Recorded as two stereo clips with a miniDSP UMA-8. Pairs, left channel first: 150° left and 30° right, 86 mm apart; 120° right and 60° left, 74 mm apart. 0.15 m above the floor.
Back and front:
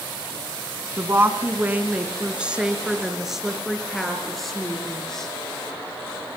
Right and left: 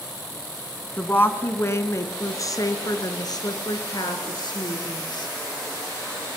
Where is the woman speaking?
70° right, 1.8 m; by 5.3 s 125° right, 4 m.